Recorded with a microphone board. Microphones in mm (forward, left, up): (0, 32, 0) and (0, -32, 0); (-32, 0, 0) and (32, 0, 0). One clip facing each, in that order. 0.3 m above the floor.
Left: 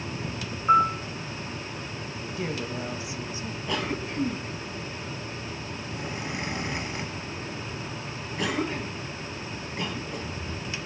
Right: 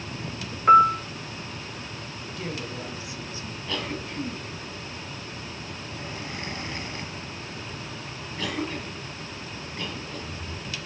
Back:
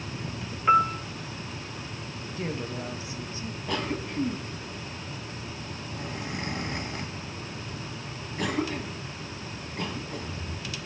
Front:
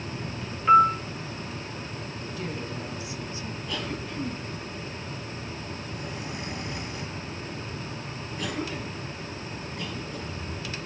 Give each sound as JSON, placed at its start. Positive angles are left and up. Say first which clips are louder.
{"t": 0.7, "sound": "a piano", "louder": "right 5 dB, front 4 dB", "azimuth_deg": -105, "distance_m": 1.2}
{"t": 2.4, "sound": "a woman speaking", "louder": "left 3 dB, back 3 dB", "azimuth_deg": 145, "distance_m": 1.9}
{"t": 3.7, "sound": "a cough", "louder": "left 2 dB, back 4 dB", "azimuth_deg": 160, "distance_m": 2.5}